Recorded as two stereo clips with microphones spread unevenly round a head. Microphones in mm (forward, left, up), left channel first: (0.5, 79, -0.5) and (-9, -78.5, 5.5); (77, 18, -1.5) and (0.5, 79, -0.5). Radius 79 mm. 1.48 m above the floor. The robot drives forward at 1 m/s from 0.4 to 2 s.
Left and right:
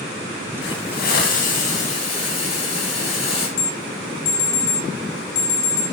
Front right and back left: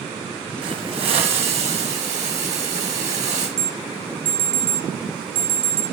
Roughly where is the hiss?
Left.